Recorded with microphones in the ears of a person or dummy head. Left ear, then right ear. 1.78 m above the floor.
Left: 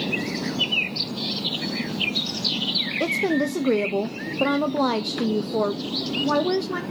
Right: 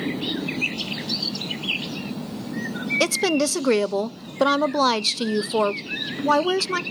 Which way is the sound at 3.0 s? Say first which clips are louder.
Right 5 dB; 60° right (ahead or behind).